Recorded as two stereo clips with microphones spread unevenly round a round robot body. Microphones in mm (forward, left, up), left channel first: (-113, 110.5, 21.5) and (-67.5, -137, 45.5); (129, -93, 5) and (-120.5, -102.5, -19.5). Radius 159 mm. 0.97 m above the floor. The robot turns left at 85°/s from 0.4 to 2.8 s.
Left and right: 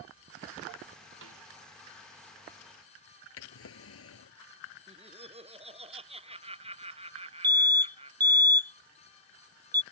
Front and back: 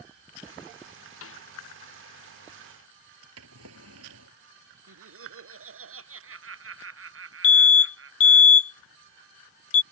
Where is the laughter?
145° right.